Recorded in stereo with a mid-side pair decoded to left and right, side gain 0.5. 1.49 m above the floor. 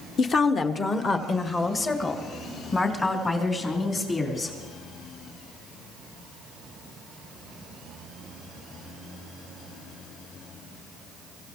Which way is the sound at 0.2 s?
50° left.